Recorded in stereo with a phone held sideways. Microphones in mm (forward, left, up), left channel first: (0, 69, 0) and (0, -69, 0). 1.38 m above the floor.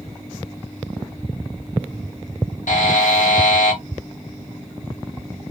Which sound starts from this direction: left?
A buzzer, at 2.7 s.